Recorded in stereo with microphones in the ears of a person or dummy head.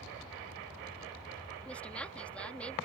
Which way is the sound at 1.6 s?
5° left (ahead or behind).